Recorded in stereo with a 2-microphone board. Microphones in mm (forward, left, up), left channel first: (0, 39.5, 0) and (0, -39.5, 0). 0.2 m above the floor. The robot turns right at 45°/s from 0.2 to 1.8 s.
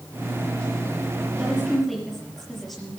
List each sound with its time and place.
1.4 s a woman speaking: 15° right (ahead or behind), 5.5 m; by 3.0 s centre (ahead or behind), 5.5 m